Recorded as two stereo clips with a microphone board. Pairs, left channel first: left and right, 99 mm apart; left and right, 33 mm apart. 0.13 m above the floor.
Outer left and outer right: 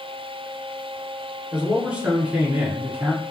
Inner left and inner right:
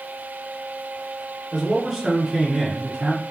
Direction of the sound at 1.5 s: 10° right (ahead or behind).